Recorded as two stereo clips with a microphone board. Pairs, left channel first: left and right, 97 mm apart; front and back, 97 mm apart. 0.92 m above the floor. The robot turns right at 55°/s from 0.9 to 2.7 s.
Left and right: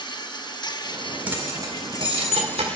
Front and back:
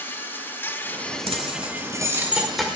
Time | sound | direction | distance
0.0 | an insect | 65° left | 0.7 m
1.3 | keys jangling | 165° right | 1.7 m